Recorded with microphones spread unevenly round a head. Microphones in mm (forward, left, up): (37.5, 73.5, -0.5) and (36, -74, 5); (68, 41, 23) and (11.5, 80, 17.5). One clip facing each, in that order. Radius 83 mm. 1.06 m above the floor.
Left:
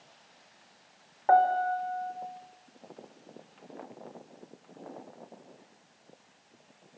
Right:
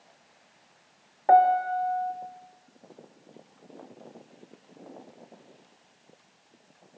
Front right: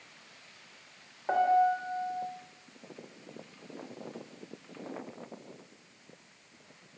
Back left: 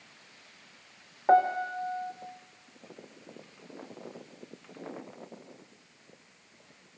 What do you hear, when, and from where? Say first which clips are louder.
1.3 s a piano: right 4 dB, back left 1 dB; 160° right, 1.6 m